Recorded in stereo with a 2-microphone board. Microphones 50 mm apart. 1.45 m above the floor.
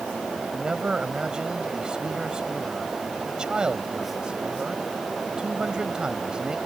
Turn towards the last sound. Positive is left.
turn(degrees=-15)  # may be behind; listen again after turning